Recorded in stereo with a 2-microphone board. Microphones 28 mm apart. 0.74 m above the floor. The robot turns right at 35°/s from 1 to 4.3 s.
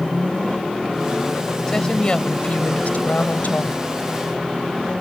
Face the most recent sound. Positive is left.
turn(degrees=115)